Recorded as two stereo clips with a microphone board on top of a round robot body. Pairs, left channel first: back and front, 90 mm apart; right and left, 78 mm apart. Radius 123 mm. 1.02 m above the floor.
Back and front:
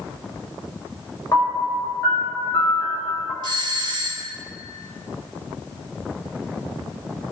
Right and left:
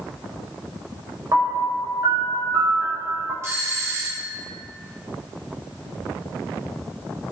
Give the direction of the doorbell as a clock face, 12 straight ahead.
11 o'clock.